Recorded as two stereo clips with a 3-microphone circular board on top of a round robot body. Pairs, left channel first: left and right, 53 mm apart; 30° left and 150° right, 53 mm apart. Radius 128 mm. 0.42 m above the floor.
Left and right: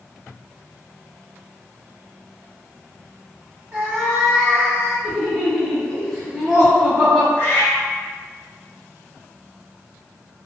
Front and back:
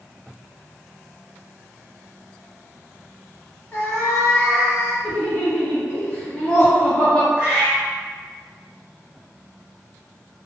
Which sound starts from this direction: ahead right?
A cat meowing, at 3.7 s.